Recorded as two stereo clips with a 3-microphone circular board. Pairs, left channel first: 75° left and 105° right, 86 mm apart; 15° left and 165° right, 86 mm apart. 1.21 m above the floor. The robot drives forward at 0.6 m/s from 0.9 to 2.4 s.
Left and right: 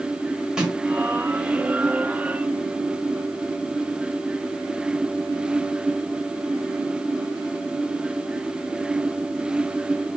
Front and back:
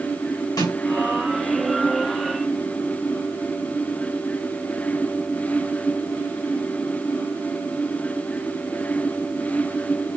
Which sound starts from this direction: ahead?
A snare drum, at 0.6 s.